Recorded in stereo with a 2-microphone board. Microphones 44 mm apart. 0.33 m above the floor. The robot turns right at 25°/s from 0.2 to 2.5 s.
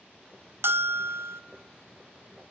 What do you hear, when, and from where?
0.6 s a bell: 75° right (ahead or behind), 0.7 m; by 1.4 s 80° right, 0.7 m